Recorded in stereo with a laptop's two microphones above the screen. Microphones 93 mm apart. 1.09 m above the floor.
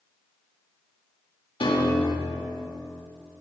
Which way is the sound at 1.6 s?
70° left (ahead or behind).